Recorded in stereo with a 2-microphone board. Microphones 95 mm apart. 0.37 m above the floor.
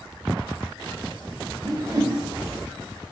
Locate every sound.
1.6 s a whoosh: 40° right (ahead or behind), 0.5 m